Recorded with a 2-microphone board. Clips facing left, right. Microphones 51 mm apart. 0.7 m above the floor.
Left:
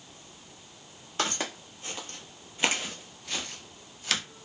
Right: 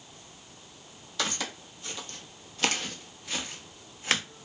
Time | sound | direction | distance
1.2 | footsteps | 35° left (ahead or behind) | 1.3 m